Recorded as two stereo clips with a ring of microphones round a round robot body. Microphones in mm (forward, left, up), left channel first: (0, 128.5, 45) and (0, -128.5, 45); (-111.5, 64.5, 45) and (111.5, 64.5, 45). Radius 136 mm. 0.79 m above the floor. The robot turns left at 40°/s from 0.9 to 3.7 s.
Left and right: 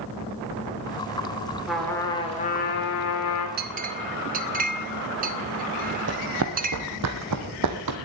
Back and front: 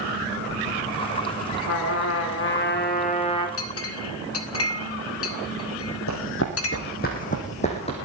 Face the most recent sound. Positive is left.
turn(degrees=-110)